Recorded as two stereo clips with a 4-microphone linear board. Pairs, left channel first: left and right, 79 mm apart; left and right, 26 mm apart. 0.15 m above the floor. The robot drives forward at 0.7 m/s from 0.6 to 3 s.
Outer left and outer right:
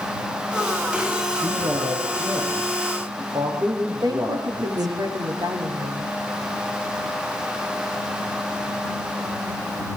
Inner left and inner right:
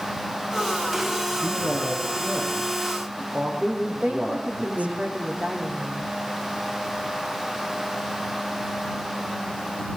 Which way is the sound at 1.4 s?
40° right (ahead or behind).